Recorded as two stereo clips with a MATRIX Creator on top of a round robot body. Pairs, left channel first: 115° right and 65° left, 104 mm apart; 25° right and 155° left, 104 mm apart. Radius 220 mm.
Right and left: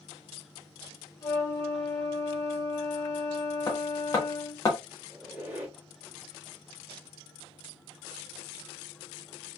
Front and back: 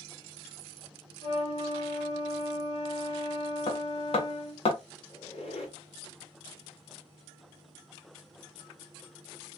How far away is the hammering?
About 1.1 m.